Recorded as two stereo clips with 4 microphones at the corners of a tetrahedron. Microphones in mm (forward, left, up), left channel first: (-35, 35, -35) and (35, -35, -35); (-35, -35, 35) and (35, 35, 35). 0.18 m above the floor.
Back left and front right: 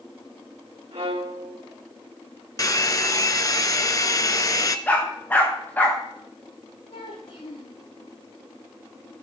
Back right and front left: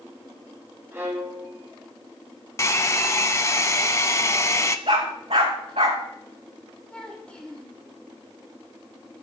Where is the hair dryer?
175° left, 0.9 m.